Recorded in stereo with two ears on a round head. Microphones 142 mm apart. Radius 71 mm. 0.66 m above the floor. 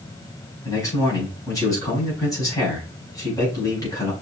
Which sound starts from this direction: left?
A man speaking, at 0.7 s.